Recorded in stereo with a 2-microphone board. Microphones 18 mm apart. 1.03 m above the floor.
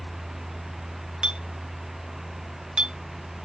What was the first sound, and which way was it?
A clink, 60° right (ahead or behind).